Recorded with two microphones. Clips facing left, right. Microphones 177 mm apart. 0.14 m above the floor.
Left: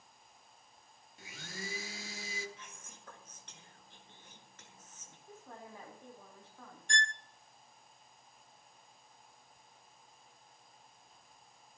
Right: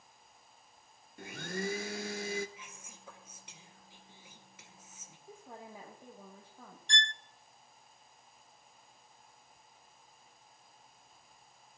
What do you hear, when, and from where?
1.2 s a blender: 55° right (ahead or behind), 1.1 m
2.6 s whispering: 10° right (ahead or behind), 2.5 m
5.3 s a woman speaking: 15° right (ahead or behind), 6 m
6.9 s a violin: 45° left (ahead or behind), 0.6 m